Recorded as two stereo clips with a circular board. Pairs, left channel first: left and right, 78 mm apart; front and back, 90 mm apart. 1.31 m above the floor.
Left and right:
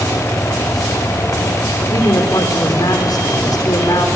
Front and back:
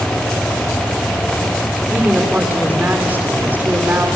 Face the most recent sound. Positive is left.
turn(degrees=110)